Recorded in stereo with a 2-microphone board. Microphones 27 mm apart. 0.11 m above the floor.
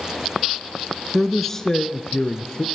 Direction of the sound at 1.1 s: Centre (ahead or behind).